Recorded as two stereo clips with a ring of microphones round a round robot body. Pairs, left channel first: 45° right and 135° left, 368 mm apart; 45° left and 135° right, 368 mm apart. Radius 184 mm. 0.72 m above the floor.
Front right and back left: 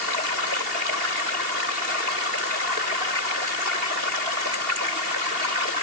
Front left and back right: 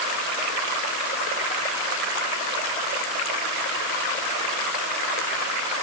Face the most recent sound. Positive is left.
No sound to turn to.